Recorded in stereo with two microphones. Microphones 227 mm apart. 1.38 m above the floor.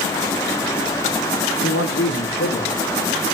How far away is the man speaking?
About 1.1 m.